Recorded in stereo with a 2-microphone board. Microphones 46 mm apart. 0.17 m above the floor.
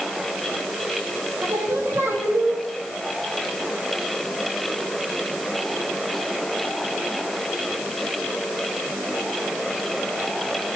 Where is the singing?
60° right (ahead or behind), 7 m.